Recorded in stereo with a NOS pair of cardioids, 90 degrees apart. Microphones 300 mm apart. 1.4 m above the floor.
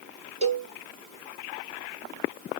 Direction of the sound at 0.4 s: 25° right.